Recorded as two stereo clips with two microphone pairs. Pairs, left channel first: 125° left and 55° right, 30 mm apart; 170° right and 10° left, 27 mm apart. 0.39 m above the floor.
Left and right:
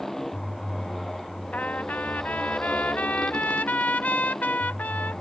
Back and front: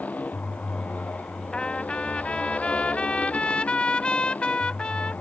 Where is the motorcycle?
155° right; by 5.2 s 160° right.